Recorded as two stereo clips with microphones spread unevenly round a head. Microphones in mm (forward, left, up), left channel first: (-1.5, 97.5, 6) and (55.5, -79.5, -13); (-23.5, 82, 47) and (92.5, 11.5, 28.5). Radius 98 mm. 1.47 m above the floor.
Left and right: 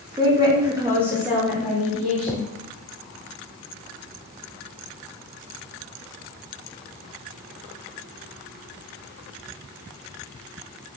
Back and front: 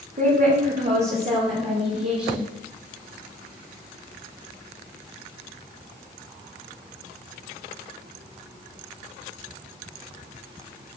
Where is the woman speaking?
5° right, 2 m; by 2.5 s 20° left, 3.5 m.